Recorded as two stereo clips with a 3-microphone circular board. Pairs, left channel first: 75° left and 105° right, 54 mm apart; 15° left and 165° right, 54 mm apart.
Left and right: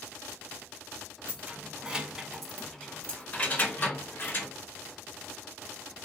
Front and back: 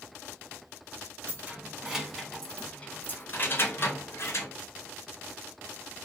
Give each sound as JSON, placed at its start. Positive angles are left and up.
{"t": 1.3, "sound": "keys jangling", "azimuth_deg": -135, "distance_m": 0.9}